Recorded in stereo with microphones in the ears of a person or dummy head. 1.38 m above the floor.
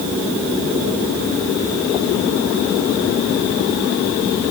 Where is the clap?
No clap in this recording.